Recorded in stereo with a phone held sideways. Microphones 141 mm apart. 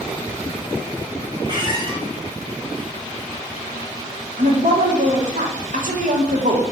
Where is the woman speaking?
65° right (ahead or behind), 0.9 m.